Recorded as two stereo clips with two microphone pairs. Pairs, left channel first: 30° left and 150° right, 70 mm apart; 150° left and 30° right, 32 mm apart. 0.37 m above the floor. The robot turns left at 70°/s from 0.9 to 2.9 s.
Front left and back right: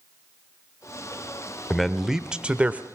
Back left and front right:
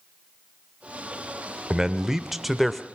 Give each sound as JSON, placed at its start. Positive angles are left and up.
{"t": 1.7, "sound": "a man speaking", "azimuth_deg": -50, "distance_m": 0.9}